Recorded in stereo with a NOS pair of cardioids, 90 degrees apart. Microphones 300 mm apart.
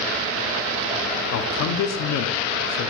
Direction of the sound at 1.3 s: 60° left.